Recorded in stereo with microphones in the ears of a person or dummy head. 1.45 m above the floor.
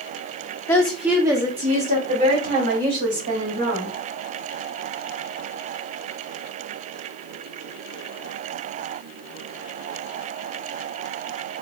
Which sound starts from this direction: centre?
A woman speaking, at 0.7 s.